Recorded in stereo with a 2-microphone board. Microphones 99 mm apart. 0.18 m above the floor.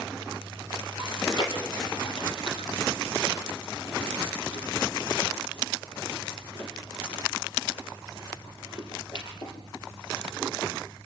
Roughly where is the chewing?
Left.